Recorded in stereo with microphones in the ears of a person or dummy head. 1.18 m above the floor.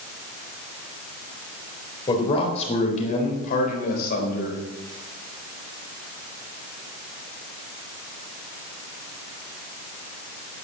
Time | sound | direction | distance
2.1 | a man speaking | 25° left (ahead or behind) | 4 m